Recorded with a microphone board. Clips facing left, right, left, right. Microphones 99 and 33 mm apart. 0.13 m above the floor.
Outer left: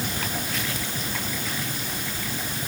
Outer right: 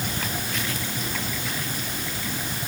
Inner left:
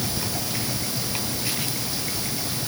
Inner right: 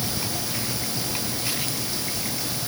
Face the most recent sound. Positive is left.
No sound to turn to.